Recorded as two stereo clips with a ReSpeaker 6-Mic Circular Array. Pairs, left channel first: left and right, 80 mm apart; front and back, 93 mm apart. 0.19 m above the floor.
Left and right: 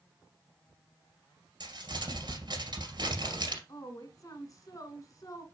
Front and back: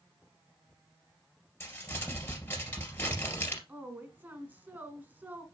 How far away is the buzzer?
I don't hear a buzzer.